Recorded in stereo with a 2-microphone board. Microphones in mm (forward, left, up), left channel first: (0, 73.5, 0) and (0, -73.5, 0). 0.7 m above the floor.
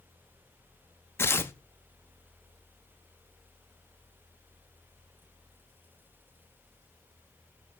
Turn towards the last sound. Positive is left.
turn(degrees=15)  # may be behind; listen again after turning